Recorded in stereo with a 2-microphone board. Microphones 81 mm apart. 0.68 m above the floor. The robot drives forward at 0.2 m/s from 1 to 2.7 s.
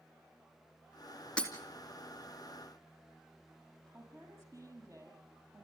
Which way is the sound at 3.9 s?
40° right (ahead or behind).